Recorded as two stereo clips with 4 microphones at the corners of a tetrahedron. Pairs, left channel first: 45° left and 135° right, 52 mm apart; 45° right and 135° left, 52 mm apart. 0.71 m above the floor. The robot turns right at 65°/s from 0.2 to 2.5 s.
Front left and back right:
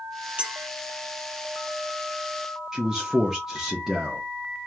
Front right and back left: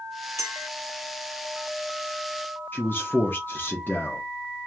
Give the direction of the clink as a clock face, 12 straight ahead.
7 o'clock.